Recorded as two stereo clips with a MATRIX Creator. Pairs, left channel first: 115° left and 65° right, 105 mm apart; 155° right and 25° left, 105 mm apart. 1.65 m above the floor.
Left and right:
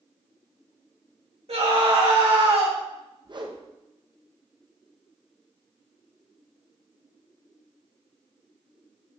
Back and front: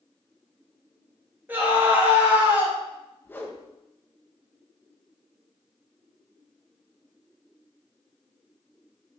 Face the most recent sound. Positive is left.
turn(degrees=-90)